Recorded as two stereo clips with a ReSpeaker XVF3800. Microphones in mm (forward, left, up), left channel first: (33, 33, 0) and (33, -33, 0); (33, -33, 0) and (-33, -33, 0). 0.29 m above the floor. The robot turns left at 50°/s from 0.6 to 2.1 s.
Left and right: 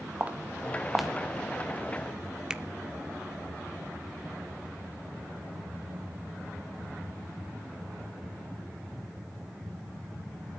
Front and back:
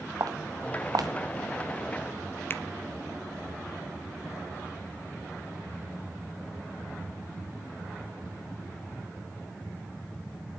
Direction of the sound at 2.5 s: 20° right.